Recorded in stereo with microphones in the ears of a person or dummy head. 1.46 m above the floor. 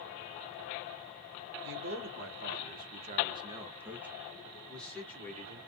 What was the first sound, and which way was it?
A man speaking, 60° right (ahead or behind).